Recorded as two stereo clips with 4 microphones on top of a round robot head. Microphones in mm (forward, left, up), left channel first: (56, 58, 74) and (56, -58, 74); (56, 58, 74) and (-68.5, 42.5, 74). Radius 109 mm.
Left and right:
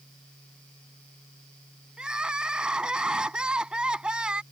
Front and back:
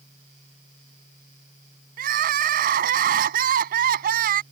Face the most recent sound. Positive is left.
turn(degrees=-175)